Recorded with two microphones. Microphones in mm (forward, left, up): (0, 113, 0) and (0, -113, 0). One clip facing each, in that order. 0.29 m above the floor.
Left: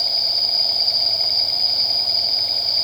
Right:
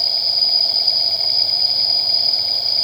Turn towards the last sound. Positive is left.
turn(degrees=-40)  # may be behind; listen again after turning